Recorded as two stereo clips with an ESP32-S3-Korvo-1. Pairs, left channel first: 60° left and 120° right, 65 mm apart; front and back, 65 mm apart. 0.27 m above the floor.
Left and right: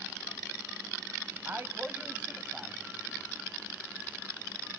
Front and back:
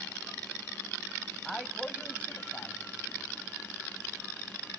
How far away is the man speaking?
About 1.9 m.